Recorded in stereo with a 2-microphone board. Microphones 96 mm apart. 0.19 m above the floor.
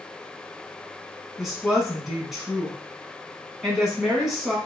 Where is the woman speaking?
5° right (ahead or behind), 2 m.